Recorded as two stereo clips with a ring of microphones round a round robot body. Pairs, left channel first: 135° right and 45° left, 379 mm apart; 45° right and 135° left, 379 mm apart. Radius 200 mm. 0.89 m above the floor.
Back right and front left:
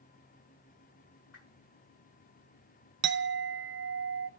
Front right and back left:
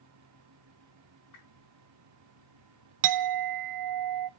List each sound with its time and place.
1.3 s a whoosh: 85° right, 5 m
3.0 s a clink: 105° left, 0.5 m